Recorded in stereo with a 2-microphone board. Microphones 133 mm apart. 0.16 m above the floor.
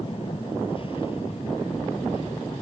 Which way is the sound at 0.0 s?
40° left (ahead or behind).